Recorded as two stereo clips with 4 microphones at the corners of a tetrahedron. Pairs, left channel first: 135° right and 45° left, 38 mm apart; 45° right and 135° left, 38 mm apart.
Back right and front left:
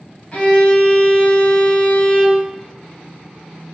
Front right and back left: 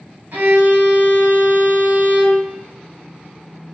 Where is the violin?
160° left, 1.1 m.